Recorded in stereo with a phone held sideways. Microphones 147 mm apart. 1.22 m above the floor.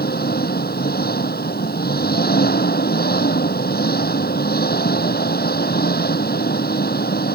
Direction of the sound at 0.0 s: 85° left.